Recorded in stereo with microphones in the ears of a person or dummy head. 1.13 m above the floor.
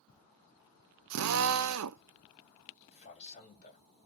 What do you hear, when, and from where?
1.1 s a drill: 75° right (ahead or behind), 0.5 m
2.9 s a man speaking: 30° left (ahead or behind), 2.5 m